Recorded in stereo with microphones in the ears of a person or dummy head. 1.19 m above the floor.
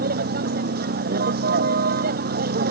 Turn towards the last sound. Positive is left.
turn(degrees=-55)  # may be behind; listen again after turning